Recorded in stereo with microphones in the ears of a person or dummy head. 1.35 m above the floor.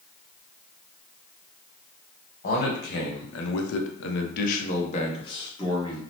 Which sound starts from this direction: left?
A man speaking, at 2.4 s.